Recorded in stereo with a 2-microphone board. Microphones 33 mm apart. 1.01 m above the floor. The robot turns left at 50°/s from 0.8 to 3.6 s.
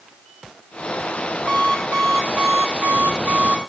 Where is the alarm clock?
40° right, 5 m; by 3.6 s 145° right, 5 m.